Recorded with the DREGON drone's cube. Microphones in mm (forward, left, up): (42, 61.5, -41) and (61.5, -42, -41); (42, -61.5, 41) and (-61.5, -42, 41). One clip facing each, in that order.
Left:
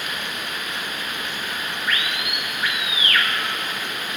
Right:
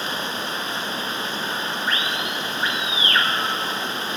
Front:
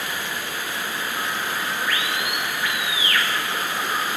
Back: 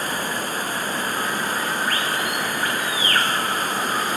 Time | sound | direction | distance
0.0 | running water | 140° right | ?